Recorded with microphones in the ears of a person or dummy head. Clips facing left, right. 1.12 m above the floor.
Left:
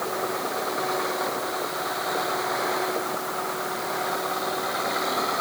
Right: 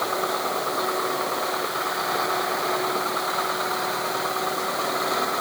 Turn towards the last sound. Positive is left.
No sound to turn to.